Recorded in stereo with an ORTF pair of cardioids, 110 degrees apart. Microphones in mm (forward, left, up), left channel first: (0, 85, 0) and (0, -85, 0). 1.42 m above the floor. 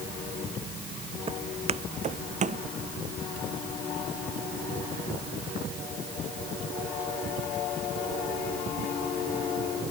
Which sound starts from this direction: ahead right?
Footsteps, at 1.3 s.